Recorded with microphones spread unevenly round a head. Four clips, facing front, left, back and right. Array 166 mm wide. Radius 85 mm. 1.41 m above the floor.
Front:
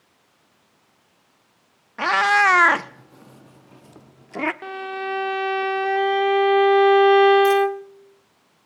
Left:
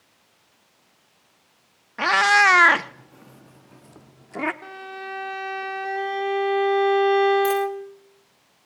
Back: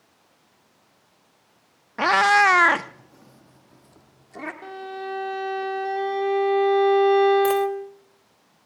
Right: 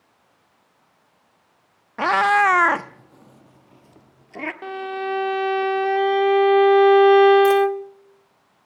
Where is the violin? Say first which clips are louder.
Right 9 dB, front 4 dB; 50° right, 0.8 m.